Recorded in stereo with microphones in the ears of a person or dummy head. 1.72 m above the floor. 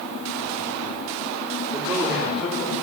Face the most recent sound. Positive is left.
turn(degrees=10)  # may be behind; listen again after turning